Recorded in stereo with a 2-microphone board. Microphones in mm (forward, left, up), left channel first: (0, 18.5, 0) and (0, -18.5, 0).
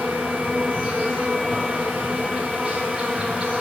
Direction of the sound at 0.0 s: 5° right (ahead or behind).